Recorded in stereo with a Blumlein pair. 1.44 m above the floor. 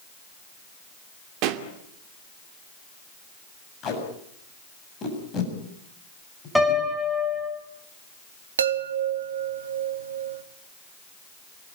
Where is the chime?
70° right, 1.4 m.